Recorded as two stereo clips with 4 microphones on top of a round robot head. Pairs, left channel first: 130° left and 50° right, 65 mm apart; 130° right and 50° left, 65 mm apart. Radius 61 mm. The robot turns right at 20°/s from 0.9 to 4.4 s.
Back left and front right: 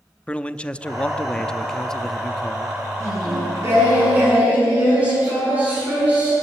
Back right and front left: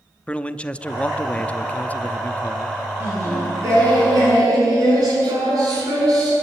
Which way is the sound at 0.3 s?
Straight behind.